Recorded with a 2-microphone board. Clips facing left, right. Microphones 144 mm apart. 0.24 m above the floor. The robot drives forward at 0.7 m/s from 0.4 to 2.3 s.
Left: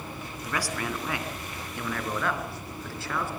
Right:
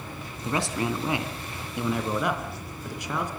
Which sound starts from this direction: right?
A man speaking, at 0.4 s.